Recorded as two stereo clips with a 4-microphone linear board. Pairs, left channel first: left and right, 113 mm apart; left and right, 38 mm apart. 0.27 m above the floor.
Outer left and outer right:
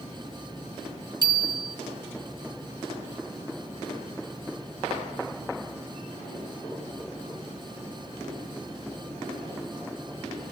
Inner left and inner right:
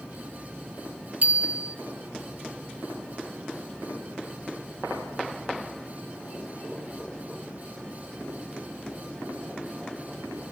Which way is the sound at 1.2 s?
40° right (ahead or behind).